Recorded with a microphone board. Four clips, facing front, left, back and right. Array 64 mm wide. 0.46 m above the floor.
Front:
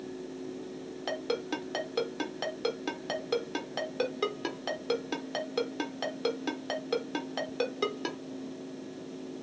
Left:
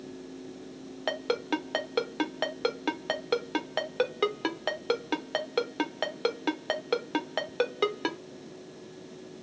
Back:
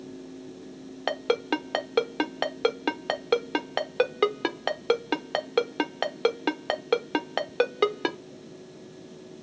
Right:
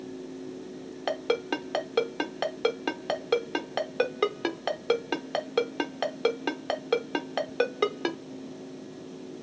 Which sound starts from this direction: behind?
A ringtone, at 1.1 s.